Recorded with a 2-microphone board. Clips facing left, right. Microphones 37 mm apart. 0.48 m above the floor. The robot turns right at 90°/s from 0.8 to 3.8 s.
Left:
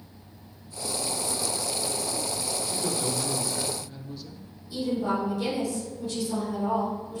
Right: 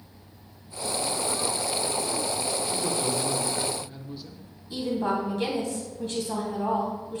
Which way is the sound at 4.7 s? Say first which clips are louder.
Even; 55° right (ahead or behind).